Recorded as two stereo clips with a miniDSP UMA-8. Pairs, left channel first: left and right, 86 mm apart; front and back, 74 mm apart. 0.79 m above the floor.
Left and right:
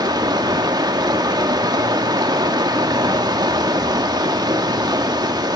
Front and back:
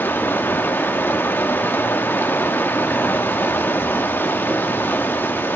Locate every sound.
0.0 s running water: 60° right, 1.4 m